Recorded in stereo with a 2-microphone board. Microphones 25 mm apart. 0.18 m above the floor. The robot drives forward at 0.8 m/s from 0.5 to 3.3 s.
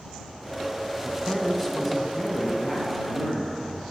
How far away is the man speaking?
About 1.1 m.